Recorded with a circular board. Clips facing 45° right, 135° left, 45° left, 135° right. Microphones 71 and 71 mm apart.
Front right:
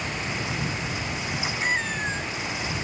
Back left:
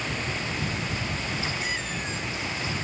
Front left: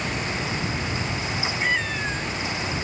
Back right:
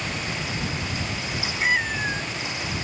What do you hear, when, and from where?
1.6 s a cat meowing: 65° right